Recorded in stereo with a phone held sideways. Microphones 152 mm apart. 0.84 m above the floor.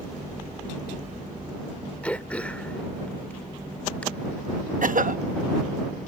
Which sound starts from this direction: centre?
Throat clearing, at 2.0 s.